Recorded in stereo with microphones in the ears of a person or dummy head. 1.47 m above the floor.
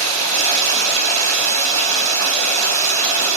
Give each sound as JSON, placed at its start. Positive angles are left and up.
{"t": 0.0, "sound": "running water", "side_deg": -35, "distance_m": 1.0}